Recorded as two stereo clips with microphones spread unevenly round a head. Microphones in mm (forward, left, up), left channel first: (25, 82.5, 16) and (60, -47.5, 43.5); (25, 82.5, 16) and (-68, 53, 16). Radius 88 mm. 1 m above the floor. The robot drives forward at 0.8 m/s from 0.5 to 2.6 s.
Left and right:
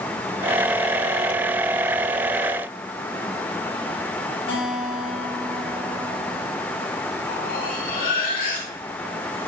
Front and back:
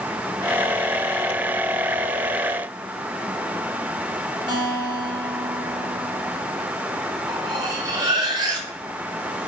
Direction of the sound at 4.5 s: 160° left.